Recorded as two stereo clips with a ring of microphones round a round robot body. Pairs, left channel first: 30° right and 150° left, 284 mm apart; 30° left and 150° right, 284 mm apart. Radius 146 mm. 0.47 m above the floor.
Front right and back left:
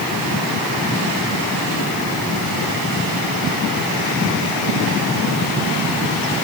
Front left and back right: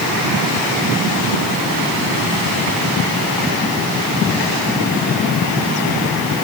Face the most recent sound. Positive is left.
No sound to turn to.